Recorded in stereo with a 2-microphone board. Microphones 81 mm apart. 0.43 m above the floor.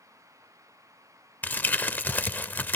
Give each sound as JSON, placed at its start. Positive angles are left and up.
{"t": 1.4, "sound": "crumpling", "side_deg": 25, "distance_m": 0.7}